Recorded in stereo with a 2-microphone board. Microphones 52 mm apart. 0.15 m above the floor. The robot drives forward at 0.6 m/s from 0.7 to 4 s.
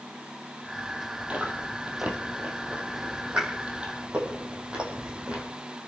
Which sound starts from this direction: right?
Chewing, at 1.3 s.